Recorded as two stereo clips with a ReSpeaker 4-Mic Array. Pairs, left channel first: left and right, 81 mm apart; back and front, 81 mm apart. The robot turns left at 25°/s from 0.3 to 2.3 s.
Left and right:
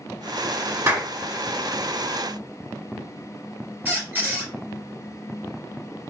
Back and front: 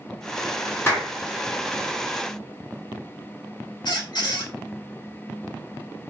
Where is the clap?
130° right, 1.8 m; by 1.1 s 140° right, 1.8 m.